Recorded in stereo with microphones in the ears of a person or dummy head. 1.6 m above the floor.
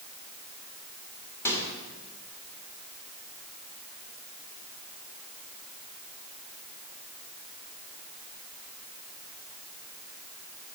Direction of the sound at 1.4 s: 15° left (ahead or behind).